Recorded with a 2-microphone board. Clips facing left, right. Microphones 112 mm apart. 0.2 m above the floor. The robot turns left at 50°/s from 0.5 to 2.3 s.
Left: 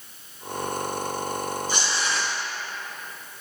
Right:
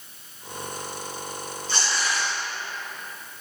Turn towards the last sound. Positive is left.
turn(degrees=135)